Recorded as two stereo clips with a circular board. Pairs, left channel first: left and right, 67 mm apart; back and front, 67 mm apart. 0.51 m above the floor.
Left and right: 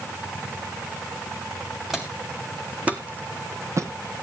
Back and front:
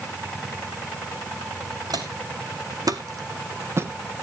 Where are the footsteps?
5° right, 3 m; by 4.2 s 70° right, 1.4 m.